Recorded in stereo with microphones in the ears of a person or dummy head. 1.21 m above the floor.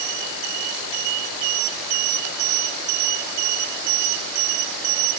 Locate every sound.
Only background noise.